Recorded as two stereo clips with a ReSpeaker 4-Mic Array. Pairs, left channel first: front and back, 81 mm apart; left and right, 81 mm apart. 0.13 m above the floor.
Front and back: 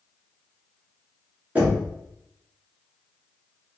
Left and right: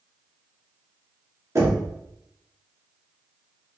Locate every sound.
1.6 s knocking: 120° right, 1.2 m